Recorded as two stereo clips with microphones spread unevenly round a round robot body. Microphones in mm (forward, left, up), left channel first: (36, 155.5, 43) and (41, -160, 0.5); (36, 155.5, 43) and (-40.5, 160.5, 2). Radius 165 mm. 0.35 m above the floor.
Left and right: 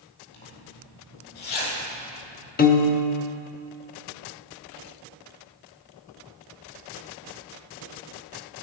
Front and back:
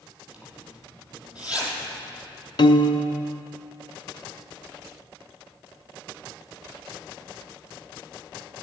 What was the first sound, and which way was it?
A zipper, 100° left.